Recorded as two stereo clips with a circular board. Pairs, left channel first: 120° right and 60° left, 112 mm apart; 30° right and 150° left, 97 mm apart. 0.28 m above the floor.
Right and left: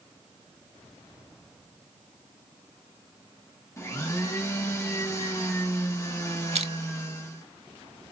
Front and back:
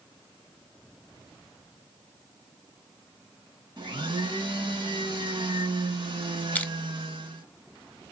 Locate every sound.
3.8 s a blender: 175° left, 2 m
6.5 s crushing: 40° left, 1.1 m